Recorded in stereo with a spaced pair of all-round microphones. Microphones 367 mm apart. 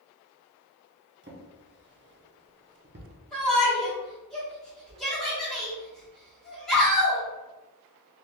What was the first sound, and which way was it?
A drawer, 30° right (ahead or behind).